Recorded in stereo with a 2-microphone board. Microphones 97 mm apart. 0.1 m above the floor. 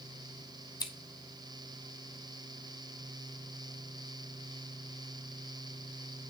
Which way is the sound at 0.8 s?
50° left (ahead or behind).